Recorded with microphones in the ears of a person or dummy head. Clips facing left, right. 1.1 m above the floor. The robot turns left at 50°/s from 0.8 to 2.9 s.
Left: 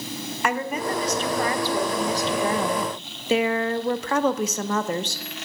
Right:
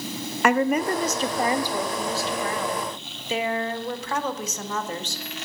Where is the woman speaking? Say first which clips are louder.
Right 6 dB; 125° right, 0.6 m; by 5.2 s 130° left, 0.6 m.